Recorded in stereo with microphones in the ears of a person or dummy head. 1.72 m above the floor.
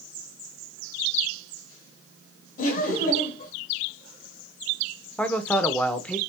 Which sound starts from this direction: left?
Laughter, at 2.6 s.